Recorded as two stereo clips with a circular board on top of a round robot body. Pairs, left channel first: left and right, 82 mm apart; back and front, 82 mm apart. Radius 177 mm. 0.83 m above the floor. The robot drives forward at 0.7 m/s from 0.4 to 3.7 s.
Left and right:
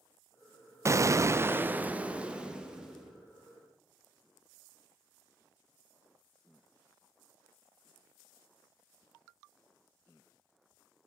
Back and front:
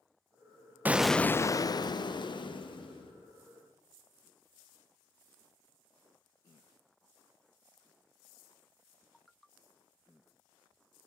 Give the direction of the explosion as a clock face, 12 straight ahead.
2 o'clock.